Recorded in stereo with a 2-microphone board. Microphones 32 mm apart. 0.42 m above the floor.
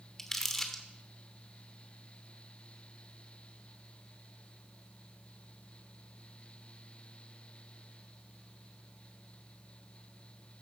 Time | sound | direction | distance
0.2 | crumpling | 15° left (ahead or behind) | 1.1 m